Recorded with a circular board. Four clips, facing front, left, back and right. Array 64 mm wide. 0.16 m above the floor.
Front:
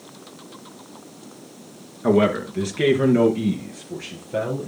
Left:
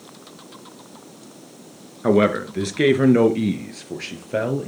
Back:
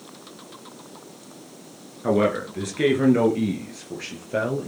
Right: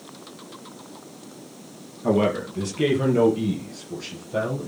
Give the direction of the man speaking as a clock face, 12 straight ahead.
9 o'clock.